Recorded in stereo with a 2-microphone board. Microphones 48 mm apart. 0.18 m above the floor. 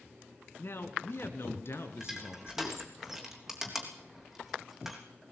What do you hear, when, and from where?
0.6 s a man speaking: 50° left (ahead or behind), 2.5 m; by 2.8 s 60° left (ahead or behind), 3.5 m
2.0 s crushing: 5° right (ahead or behind), 3.5 m